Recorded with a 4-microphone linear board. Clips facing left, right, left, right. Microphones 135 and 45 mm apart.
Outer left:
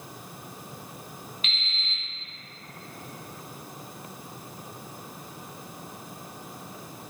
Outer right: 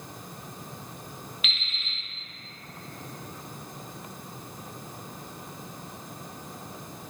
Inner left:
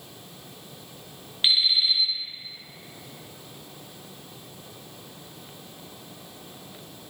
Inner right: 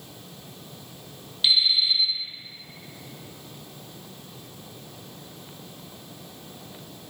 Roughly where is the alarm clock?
Left.